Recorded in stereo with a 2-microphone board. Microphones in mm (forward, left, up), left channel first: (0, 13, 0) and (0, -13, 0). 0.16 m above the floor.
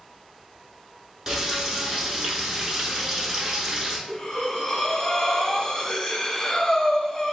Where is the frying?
20° right (ahead or behind), 0.8 m.